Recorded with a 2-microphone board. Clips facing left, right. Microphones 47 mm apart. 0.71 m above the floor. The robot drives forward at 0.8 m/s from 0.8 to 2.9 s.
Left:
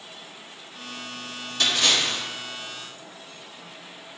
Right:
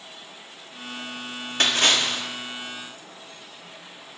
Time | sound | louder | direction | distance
1.6 | a splash | right 2 dB | 50° right (ahead or behind) | 1.2 m